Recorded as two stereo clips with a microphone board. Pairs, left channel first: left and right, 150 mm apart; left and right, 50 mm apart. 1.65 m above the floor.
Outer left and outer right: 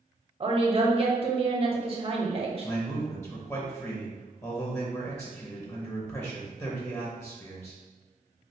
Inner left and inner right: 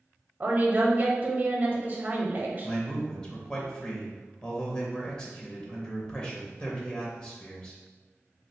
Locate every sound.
0.4 s a woman speaking: 40° right (ahead or behind), 0.6 m
2.6 s a man speaking: 15° left (ahead or behind), 0.5 m